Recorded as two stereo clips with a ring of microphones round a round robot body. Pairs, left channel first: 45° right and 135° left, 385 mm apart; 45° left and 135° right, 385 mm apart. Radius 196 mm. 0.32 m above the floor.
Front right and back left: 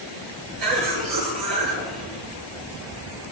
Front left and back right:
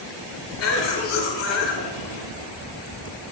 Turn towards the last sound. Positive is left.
turn(degrees=100)